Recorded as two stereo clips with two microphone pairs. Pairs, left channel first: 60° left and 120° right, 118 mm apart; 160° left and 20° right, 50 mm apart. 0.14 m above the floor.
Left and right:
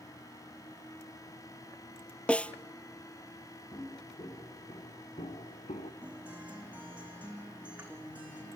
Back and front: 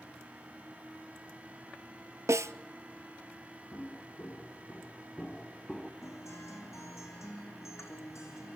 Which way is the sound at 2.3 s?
15° right.